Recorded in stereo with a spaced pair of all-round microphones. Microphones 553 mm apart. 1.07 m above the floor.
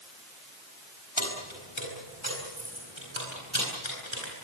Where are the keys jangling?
60° left (ahead or behind), 7 m; by 4.3 s 55° left (ahead or behind), 10.5 m.